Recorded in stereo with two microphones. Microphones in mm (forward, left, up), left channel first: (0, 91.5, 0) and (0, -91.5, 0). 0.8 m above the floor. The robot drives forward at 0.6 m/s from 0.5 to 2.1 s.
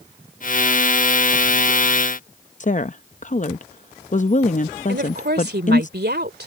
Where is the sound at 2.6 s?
45° left (ahead or behind).